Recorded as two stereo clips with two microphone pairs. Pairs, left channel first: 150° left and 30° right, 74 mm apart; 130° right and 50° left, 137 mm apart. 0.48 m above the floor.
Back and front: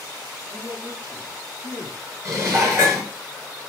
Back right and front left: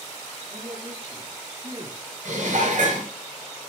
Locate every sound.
0.5 s a man speaking: 5° left, 6.5 m; by 2.0 s 5° right, 6 m
2.2 s dishes clattering: 20° left, 4.5 m